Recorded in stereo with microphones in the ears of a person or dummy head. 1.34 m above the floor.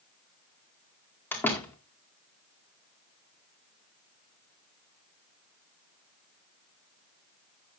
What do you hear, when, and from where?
1.3 s a door slam: 15° left (ahead or behind), 1.9 m